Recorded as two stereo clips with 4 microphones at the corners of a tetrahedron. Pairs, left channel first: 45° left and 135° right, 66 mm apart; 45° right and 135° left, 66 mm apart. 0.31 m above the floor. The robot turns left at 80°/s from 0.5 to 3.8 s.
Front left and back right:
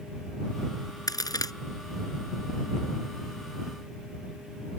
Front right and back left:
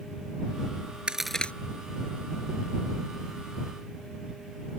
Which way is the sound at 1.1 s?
60° left.